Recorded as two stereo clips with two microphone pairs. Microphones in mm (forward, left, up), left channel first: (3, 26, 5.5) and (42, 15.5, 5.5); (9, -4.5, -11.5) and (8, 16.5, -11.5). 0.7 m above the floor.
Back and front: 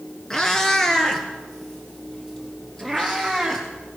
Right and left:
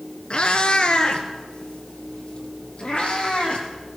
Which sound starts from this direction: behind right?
A cat meowing, at 0.3 s.